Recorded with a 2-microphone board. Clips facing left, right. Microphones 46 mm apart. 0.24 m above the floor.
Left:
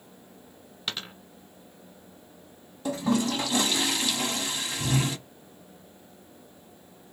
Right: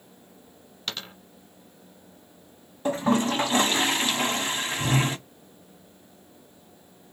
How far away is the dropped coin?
About 1.2 m.